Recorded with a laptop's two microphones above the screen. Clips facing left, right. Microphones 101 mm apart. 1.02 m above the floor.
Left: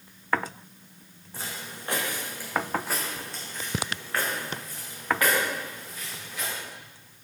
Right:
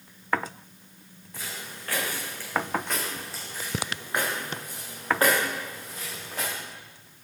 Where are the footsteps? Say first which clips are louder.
Left 1 dB; 30° left (ahead or behind), 5.5 m; by 6.5 s 45° right (ahead or behind), 7.5 m.